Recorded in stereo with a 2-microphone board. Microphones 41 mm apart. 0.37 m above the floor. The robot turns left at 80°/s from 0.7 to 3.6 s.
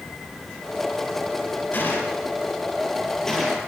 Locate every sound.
1.7 s a gunshot: 45° left (ahead or behind), 6 m; by 3.6 s 15° right (ahead or behind), 6 m